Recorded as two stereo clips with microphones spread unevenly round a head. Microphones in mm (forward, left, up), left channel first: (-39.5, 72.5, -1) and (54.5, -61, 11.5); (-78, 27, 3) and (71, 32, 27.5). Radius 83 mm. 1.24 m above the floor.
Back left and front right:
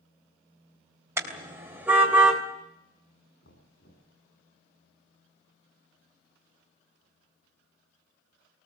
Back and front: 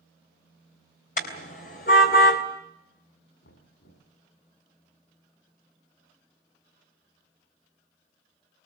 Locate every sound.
1.2 s a car horn: 130° right, 3.5 m; by 2.4 s 140° right, 2.5 m
3.4 s knocking: 160° left, 7.5 m